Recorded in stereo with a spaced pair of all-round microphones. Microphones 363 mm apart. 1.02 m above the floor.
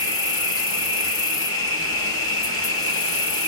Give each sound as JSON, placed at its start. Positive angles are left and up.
{"t": 0.0, "sound": "an insect", "side_deg": 35, "distance_m": 1.3}